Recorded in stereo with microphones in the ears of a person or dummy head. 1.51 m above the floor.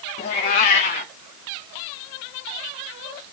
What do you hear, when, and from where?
0.2 s a cat meowing: 35° left (ahead or behind), 0.8 m